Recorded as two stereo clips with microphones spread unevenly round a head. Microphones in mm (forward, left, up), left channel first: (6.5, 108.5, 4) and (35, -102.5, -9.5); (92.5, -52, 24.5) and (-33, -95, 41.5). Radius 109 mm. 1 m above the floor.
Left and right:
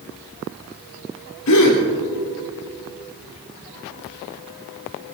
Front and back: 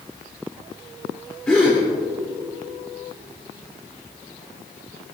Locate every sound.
1.5 s a gasp: 100° left, 3 m